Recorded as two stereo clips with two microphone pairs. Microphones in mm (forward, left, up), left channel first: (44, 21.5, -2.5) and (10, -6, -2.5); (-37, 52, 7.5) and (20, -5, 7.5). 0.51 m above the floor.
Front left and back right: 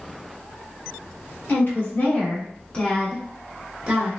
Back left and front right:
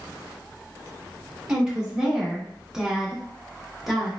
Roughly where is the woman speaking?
Ahead left.